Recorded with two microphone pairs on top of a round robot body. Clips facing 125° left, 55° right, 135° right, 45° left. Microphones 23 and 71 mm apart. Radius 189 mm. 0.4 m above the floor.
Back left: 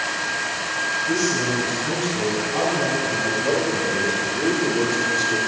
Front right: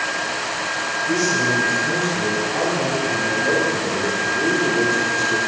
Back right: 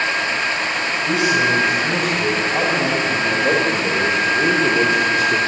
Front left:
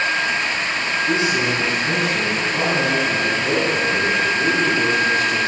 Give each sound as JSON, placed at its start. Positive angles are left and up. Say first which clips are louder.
{"t": 1.1, "sound": "a man speaking", "louder": "front right 6 dB, back right 4 dB", "azimuth_deg": -145, "distance_m": 5.0}